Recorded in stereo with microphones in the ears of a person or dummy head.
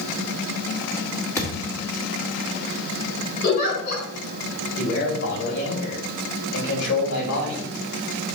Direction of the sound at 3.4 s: 50° left (ahead or behind).